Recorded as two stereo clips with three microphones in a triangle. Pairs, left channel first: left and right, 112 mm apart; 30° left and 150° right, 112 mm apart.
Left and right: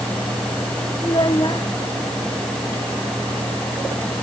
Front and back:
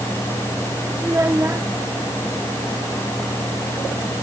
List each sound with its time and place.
1.0 s a child speaking: 140° left